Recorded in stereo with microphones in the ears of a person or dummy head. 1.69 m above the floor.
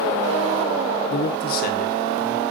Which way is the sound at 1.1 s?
60° left (ahead or behind).